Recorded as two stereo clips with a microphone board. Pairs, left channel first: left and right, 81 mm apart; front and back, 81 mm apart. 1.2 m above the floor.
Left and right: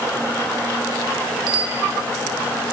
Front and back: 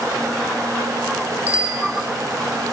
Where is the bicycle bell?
110° right, 4 m.